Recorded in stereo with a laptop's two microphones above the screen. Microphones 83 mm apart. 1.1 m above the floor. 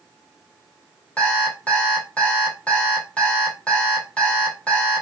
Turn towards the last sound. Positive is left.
turn(degrees=15)  # may be behind; listen again after turning